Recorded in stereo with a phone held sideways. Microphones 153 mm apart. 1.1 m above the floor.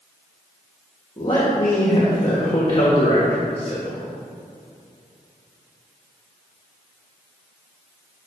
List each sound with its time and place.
1.2 s a man speaking: 30° left (ahead or behind), 1.5 m